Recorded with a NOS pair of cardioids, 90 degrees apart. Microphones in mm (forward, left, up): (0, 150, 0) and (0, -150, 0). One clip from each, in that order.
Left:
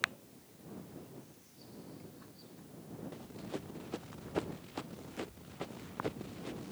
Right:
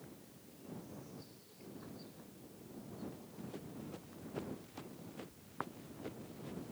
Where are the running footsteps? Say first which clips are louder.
Left 6 dB; 60° left.